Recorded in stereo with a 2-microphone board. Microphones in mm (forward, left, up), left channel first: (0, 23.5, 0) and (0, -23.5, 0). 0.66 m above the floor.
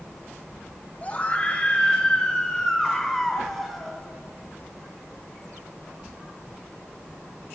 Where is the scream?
30° left (ahead or behind), 4 m; by 4.0 s centre (ahead or behind), 5.5 m.